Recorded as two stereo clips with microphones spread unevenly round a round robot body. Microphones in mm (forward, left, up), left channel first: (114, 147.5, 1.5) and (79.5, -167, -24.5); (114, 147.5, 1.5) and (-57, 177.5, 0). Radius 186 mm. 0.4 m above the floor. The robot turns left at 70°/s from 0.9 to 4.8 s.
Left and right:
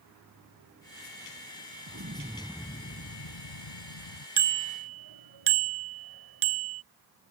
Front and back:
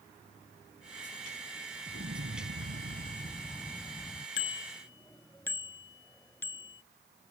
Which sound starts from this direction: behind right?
An explosion, at 1.9 s.